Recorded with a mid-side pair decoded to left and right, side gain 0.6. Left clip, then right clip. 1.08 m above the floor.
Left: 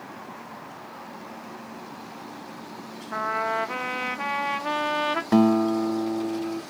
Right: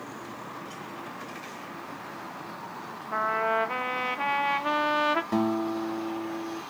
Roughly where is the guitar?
Ahead left.